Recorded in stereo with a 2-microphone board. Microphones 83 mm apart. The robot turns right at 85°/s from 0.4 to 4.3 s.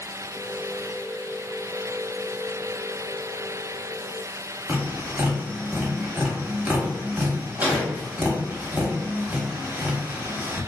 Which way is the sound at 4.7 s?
20° right (ahead or behind).